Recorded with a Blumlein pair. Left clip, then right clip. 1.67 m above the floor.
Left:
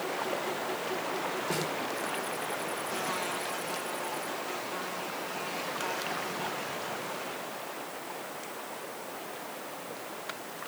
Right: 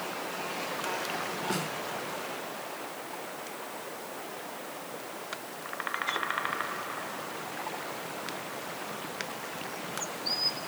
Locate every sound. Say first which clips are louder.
1.5 s a snare drum: even; straight ahead, 4 m